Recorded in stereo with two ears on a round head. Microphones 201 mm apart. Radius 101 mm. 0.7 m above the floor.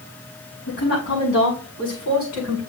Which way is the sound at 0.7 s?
55° left (ahead or behind).